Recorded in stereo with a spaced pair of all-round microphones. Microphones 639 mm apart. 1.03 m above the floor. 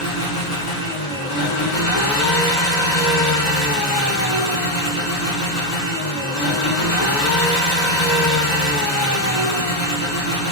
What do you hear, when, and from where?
0.0 s an engine running: 70° left (ahead or behind), 1.0 m